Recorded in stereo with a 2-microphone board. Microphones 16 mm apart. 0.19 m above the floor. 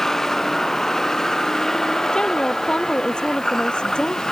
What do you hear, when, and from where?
0.0 s a vehicle: 20° left (ahead or behind); by 4.3 s 30° left (ahead or behind)
2.1 s a woman speaking: 60° left (ahead or behind)